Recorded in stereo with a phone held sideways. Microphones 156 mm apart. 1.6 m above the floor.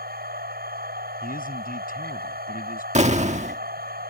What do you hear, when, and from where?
0.0 s a machine running: 70° right (ahead or behind)
1.2 s a man speaking: 60° left (ahead or behind)
3.0 s an explosion: 45° right (ahead or behind)